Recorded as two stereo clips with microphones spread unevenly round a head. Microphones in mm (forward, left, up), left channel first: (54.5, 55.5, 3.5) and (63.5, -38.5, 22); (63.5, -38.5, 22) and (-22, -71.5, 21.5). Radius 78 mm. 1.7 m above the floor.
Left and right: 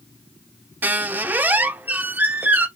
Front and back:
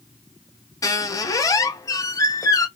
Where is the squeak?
25° right, 1.0 m.